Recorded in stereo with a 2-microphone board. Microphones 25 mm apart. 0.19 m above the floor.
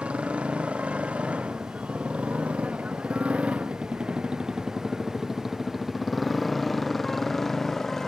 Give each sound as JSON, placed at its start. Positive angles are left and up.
{"t": 0.0, "sound": "a motorcycle", "side_deg": -70}